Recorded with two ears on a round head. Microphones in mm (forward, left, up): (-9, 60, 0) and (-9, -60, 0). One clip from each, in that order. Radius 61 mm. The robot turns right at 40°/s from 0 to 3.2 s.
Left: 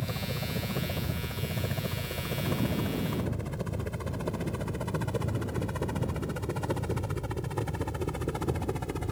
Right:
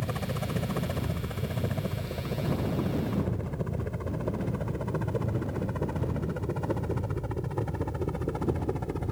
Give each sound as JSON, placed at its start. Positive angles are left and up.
{"t": 0.0, "sound": "a helicopter", "side_deg": -55}